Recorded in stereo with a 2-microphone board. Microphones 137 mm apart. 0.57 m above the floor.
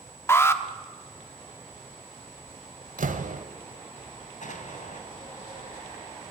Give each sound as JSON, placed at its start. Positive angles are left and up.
{"t": 0.3, "sound": "an alarm", "side_deg": 20, "distance_m": 1.2}
{"t": 3.0, "sound": "a door slam", "side_deg": -75, "distance_m": 1.7}
{"t": 4.4, "sound": "an explosion", "side_deg": 65, "distance_m": 3.0}